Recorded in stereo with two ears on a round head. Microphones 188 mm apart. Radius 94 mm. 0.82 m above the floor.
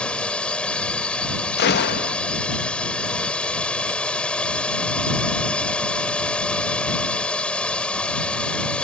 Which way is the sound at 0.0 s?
5° left (ahead or behind).